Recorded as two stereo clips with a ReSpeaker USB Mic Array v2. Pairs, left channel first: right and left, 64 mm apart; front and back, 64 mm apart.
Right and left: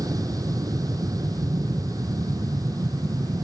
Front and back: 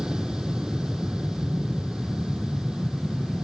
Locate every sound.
0.0 s an aircraft: 105° left